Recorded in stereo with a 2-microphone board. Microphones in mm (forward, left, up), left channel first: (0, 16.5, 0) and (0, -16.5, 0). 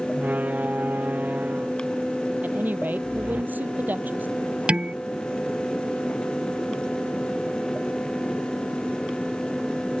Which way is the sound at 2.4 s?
65° right (ahead or behind).